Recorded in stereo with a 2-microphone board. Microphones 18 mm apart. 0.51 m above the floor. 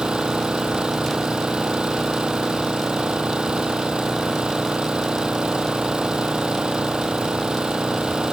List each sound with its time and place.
0.0 s an engine running: 70° right (ahead or behind)